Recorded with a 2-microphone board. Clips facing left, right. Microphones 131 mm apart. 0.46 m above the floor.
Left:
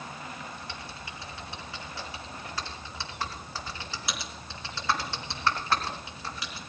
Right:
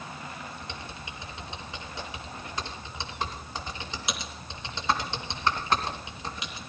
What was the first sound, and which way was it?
Typing on a keyboard, 20° right (ahead or behind).